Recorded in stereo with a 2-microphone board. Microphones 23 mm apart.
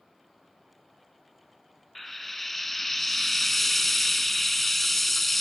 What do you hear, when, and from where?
1.9 s frying: 5° left (ahead or behind), 0.7 m